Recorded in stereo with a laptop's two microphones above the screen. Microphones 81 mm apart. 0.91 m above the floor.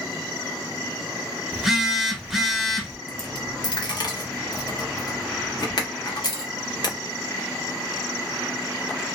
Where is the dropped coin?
60° left (ahead or behind), 0.7 m.